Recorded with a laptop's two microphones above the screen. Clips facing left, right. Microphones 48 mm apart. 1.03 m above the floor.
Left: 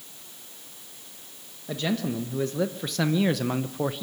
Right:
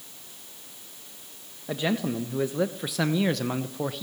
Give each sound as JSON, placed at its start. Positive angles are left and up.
{"t": 1.7, "sound": "a man speaking", "side_deg": -15, "distance_m": 1.4}